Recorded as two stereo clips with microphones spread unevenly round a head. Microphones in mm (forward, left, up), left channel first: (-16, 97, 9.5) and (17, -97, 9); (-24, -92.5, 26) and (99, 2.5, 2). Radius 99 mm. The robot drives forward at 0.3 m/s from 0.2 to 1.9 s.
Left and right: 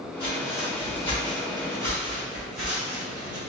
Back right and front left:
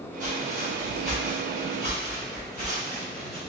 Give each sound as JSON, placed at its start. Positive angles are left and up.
{"t": 0.2, "sound": "footsteps", "azimuth_deg": 115, "distance_m": 2.0}